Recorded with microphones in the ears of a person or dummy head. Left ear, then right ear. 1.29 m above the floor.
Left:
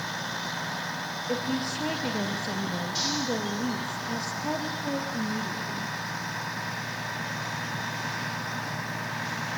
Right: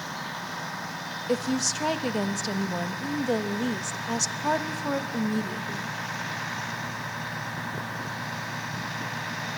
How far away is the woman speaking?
About 1.3 m.